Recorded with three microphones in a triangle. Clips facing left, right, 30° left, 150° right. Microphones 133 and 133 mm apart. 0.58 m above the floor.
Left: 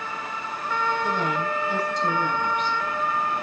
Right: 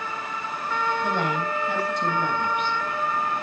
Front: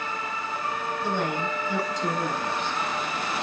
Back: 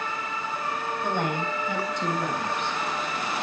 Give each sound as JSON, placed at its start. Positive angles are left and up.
{"t": 1.0, "sound": "a woman speaking", "azimuth_deg": -115, "distance_m": 4.0}